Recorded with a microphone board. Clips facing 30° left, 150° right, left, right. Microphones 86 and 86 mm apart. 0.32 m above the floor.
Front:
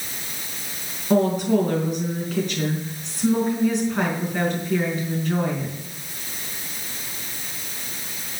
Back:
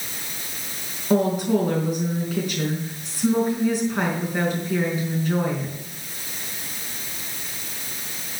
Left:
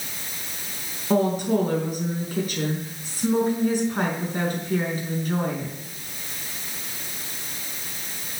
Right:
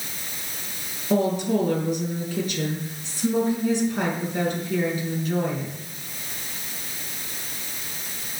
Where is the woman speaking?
125° left, 4.5 m.